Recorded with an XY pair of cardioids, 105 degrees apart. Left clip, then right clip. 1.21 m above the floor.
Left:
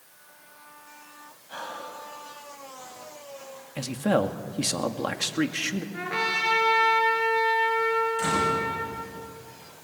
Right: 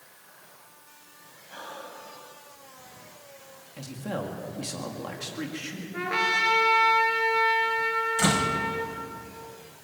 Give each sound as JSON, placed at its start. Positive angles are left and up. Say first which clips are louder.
{"t": 1.5, "sound": "breathing", "louder": "left 4 dB", "azimuth_deg": 35, "distance_m": 6.0}
{"t": 3.8, "sound": "a man speaking", "louder": "left 10 dB", "azimuth_deg": 60, "distance_m": 2.0}
{"t": 5.9, "sound": "a trumpet", "louder": "right 3 dB", "azimuth_deg": -15, "distance_m": 5.5}
{"t": 8.2, "sound": "a door slam", "louder": "even", "azimuth_deg": -60, "distance_m": 5.0}